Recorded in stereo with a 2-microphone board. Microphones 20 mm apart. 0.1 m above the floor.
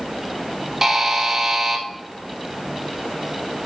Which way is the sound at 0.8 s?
20° right (ahead or behind).